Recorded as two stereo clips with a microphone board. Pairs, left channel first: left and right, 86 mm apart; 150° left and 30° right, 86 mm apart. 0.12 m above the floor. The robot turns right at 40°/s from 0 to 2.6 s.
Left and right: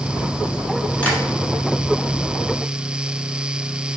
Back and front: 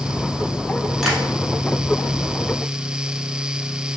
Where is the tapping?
50° left, 1.0 m; by 1.2 s 55° left, 1.0 m.